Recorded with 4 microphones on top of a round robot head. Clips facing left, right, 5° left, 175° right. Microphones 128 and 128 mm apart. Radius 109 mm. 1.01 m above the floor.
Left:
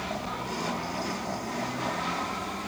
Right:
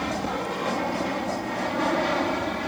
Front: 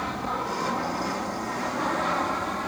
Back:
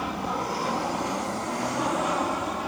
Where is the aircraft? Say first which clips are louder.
Right 6 dB, back 1 dB; 95° right.